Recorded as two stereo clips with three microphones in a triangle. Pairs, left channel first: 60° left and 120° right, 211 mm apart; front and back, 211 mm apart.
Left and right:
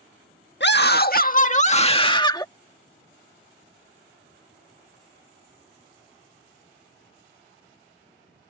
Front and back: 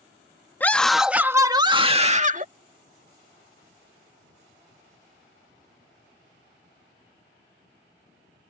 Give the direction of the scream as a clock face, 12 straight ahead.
9 o'clock.